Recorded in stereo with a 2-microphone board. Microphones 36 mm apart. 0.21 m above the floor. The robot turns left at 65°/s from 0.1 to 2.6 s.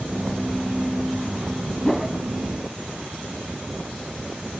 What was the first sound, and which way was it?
A whoosh, 5° left (ahead or behind).